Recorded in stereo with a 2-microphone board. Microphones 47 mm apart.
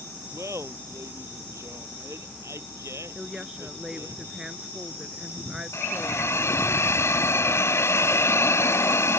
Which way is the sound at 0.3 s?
80° right.